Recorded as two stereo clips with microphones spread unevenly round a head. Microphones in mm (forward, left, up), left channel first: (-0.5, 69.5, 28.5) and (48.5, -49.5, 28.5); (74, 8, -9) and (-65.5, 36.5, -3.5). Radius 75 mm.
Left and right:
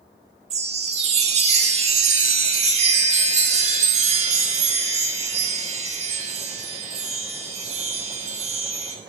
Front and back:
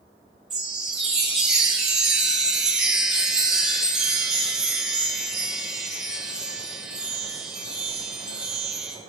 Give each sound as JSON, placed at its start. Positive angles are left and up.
{"t": 0.5, "sound": "a chime", "azimuth_deg": -105, "distance_m": 1.0}